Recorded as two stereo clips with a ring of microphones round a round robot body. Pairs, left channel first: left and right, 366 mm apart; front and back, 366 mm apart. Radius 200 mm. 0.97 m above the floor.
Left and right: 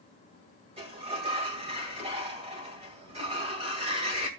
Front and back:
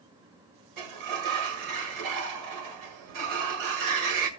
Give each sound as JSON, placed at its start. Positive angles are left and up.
{"t": 0.8, "sound": "a sliding door", "azimuth_deg": -165, "distance_m": 1.8}